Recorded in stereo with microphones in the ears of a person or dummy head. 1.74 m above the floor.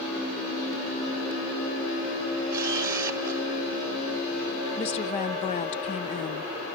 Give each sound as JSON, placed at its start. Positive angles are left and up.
{"t": 2.5, "sound": "a camera shutter", "side_deg": -20, "distance_m": 1.9}
{"t": 4.8, "sound": "a woman speaking", "side_deg": 35, "distance_m": 0.9}